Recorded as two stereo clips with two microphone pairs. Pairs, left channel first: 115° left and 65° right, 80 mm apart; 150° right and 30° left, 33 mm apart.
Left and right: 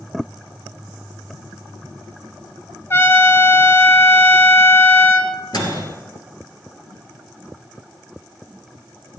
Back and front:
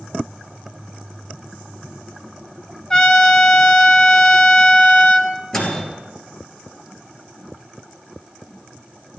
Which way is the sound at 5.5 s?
135° left.